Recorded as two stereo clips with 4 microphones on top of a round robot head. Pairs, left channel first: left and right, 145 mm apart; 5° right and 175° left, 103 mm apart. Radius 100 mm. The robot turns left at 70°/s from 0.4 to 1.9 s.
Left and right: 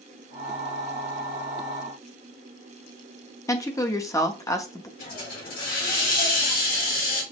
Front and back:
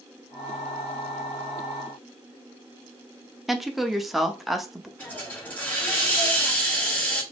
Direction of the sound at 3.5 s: 90° left.